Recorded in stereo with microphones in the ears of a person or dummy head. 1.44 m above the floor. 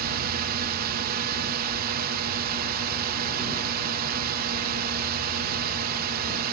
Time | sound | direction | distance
0.0 | a drone | 45° right (ahead or behind) | ?